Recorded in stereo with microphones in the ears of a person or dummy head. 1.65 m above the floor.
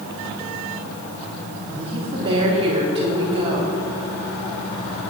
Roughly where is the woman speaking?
Right.